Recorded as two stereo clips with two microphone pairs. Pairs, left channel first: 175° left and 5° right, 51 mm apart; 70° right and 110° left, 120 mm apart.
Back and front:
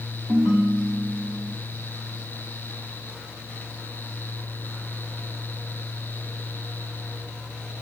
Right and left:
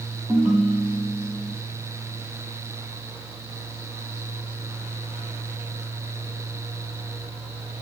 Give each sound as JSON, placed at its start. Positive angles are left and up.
{"t": 0.3, "sound": "a ringtone", "azimuth_deg": 35, "distance_m": 3.0}